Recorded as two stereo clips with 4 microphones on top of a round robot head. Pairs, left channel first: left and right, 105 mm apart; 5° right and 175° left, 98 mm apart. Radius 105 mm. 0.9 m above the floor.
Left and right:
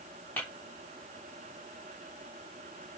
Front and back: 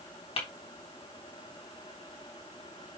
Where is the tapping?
15° left, 3 m.